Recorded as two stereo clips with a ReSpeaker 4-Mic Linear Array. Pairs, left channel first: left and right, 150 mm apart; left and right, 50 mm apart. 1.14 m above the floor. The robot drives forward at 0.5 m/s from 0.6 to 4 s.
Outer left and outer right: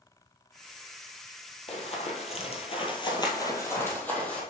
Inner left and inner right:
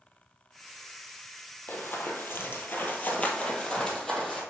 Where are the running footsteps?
45° left (ahead or behind), 1.9 m; by 4.4 s 10° left (ahead or behind), 2 m.